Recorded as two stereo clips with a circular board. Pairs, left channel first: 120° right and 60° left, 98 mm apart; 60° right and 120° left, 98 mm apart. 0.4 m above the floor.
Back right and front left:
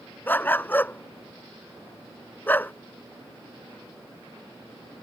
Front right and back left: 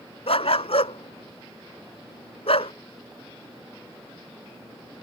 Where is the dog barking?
50° right.